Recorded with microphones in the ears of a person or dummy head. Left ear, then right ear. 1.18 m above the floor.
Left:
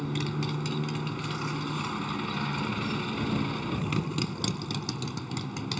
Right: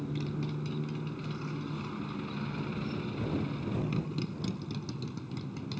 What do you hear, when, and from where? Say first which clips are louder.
0.0 s a motorcycle: left 5 dB; 55° left (ahead or behind)